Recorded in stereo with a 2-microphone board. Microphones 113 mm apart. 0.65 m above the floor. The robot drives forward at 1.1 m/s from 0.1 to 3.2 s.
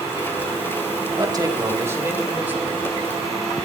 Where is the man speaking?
35° right (ahead or behind), 1.0 m; by 3.0 s 15° right (ahead or behind), 2.5 m.